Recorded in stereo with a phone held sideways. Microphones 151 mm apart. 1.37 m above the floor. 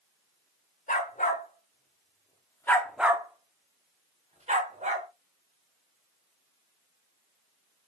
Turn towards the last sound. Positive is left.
turn(degrees=-55)  # may be behind; listen again after turning